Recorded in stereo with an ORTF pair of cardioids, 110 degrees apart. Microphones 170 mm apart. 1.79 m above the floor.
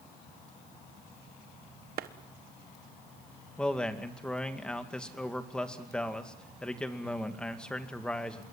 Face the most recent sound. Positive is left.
turn(degrees=5)